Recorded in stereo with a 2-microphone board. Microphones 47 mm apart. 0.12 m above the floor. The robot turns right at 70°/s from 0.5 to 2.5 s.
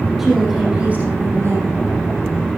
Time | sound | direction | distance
0.2 | a woman speaking | 175° right | 5 m